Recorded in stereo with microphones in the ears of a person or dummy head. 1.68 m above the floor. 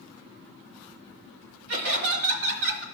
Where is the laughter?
65° right (ahead or behind), 1.1 m.